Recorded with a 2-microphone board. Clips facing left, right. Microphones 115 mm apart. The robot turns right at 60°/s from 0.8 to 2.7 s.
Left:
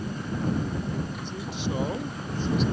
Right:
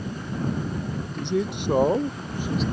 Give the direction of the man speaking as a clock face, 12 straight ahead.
3 o'clock.